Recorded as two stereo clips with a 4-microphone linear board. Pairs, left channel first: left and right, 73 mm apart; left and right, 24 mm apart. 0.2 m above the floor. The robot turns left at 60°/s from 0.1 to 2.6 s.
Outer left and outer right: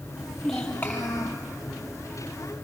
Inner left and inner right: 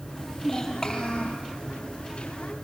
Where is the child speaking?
165° right, 5 m; by 1.4 s 120° left, 5 m.